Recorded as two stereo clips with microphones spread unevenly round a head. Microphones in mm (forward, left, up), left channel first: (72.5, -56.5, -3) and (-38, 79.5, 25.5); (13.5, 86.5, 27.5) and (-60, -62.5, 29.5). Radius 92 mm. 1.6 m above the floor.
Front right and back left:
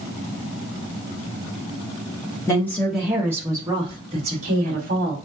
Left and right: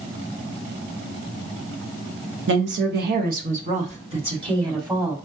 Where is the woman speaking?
125° right, 1.0 m; by 5.2 s 175° left, 1.7 m.